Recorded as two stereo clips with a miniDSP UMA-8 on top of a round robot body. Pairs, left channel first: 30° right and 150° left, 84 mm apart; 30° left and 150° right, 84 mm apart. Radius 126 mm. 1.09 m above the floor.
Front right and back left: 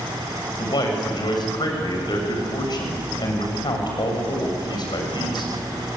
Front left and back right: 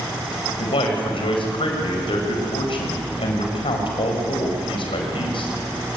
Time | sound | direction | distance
0.6 | a man speaking | 10° left | 6 m